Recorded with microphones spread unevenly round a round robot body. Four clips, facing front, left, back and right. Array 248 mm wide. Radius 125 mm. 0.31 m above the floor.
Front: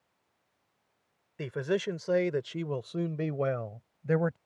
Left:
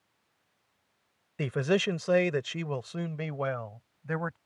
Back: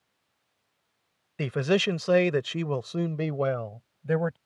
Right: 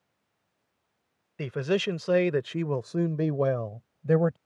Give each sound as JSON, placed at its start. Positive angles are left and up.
{"t": 1.4, "sound": "a man speaking", "azimuth_deg": 170}